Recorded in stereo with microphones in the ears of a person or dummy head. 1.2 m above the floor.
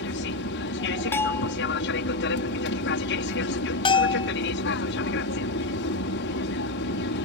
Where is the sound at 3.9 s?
25° left (ahead or behind).